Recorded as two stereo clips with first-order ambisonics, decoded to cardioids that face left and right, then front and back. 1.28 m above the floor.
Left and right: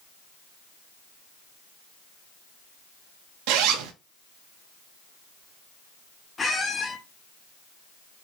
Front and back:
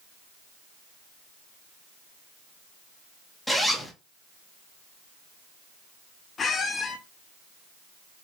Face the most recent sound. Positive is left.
turn(degrees=35)